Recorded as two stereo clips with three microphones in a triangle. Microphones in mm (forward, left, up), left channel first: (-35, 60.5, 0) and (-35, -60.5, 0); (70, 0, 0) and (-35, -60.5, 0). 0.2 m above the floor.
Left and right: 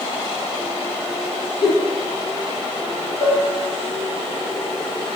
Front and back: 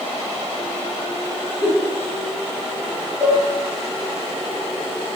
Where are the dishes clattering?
145° left, 1.2 m.